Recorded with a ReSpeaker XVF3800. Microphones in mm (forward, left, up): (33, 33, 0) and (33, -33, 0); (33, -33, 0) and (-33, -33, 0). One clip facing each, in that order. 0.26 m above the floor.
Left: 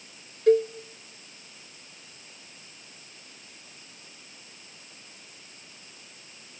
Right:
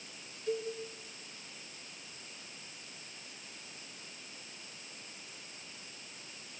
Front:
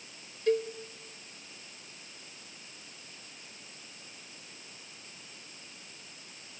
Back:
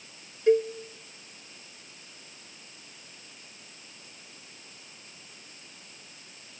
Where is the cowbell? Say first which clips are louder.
Left 16 dB, back 6 dB; 110° left, 0.6 m.